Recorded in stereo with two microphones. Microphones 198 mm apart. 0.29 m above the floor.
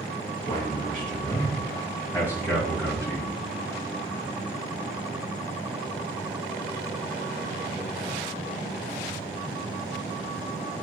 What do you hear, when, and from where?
0.5 s a man speaking: 10° left (ahead or behind), 2 m; by 3.3 s 20° right (ahead or behind), 3 m